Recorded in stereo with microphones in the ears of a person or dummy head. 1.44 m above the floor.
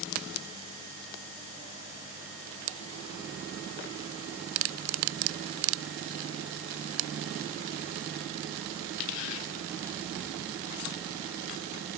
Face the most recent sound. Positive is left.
No sound to turn to.